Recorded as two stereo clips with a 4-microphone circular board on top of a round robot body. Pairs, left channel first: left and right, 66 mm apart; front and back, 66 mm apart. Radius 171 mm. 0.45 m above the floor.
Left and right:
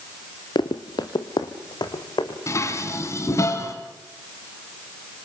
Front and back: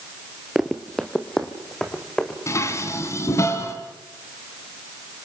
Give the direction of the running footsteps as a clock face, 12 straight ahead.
9 o'clock.